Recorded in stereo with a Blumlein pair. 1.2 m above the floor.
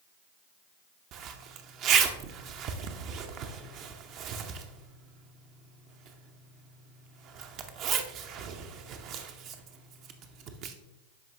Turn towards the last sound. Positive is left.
turn(degrees=-35)